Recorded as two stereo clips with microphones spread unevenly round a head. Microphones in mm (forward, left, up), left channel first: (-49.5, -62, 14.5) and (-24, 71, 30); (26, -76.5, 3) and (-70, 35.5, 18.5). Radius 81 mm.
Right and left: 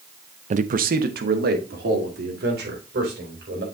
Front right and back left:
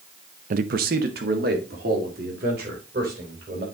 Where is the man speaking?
105° left, 0.6 m; by 3.6 s 90° left, 4.5 m.